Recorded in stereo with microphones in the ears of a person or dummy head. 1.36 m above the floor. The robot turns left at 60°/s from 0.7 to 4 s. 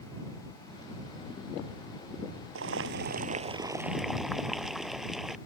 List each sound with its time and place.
2.5 s boiling: 95° right; by 5.4 s straight behind